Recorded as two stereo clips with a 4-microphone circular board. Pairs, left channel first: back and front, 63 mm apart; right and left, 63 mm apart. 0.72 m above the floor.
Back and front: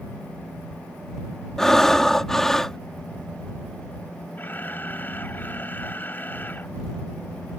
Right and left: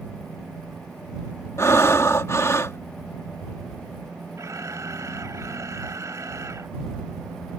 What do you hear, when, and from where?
1.6 s breathing: 100° right
4.4 s a camera shutter: 120° left